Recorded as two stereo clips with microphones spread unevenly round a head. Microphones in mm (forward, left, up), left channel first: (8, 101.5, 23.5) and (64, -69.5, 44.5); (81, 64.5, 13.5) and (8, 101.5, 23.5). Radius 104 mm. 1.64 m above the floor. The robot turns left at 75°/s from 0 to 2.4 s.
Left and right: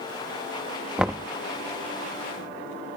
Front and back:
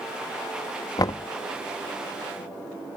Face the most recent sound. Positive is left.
turn(degrees=-95)